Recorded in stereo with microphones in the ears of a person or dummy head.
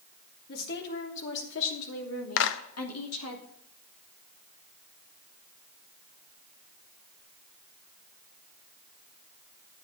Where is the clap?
70° left (ahead or behind), 0.9 m.